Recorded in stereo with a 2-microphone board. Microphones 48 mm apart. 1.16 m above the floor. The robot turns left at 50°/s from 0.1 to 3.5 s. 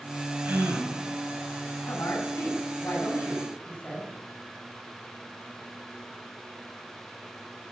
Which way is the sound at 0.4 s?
40° right (ahead or behind).